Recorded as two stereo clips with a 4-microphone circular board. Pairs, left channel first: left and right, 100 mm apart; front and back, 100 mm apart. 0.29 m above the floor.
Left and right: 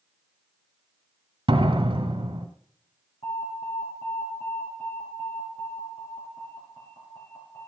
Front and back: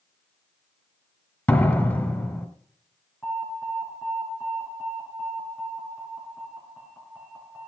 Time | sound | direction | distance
1.5 | a door slam | 65° right | 1.5 m
3.2 | an alarm | 75° left | 5 m